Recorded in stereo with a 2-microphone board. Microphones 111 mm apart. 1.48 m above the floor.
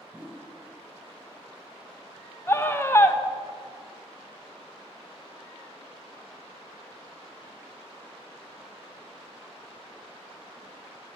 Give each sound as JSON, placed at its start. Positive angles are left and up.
{"t": 0.1, "sound": "a whoosh", "side_deg": -15, "distance_m": 1.1}
{"t": 2.5, "sound": "a scream", "side_deg": 20, "distance_m": 0.7}